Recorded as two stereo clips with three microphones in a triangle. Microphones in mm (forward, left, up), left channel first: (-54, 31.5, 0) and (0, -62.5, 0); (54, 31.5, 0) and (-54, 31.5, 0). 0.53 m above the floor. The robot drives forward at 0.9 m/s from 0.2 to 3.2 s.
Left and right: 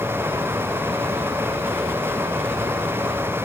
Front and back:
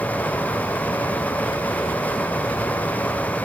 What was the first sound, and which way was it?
Only background noise.